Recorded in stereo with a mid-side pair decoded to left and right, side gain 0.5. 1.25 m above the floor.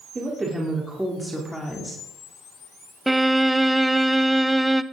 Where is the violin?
10° right, 0.6 m.